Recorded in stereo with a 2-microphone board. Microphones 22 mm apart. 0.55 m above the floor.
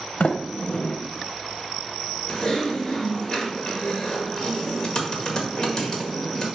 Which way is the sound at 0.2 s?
60° left (ahead or behind).